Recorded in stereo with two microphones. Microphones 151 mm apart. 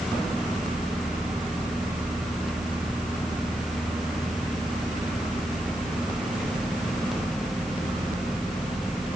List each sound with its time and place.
Only background noise.